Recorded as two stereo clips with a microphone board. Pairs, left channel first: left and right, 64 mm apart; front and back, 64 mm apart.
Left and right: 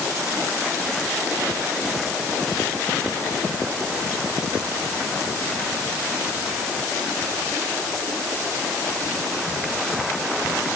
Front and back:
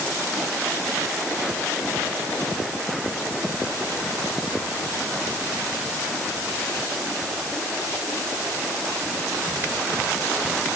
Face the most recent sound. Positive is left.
No sound to turn to.